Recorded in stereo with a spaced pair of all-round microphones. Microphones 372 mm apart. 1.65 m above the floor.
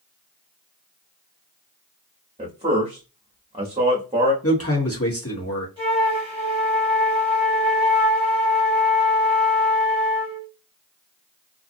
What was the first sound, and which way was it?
A man speaking, 15° right (ahead or behind).